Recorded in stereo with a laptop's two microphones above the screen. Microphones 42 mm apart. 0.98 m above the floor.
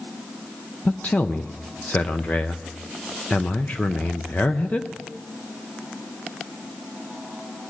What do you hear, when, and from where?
0.8 s a man speaking: 35° left (ahead or behind), 0.5 m